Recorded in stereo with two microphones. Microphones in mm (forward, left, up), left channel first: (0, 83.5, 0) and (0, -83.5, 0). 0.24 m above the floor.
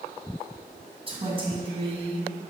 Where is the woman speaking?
35° right (ahead or behind), 2.5 m.